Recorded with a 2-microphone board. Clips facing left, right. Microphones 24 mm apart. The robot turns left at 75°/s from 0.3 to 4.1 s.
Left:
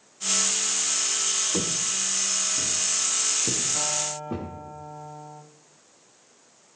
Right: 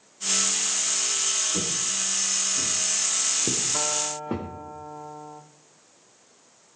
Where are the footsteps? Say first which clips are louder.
Left 1 dB; 65° left (ahead or behind), 2.5 m; by 4.5 s 75° right (ahead or behind), 5.5 m.